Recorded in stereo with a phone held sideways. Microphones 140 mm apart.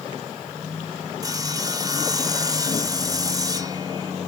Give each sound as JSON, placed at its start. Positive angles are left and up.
{"t": 1.2, "sound": "sawing", "side_deg": -25, "distance_m": 1.0}